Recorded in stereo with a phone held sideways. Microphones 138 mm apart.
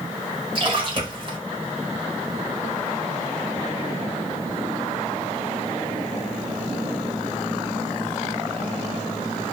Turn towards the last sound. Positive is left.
turn(degrees=-40)  # may be behind; listen again after turning